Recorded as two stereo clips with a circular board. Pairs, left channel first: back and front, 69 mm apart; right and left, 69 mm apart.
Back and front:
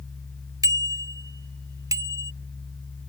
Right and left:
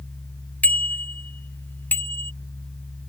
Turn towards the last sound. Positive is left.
turn(degrees=-30)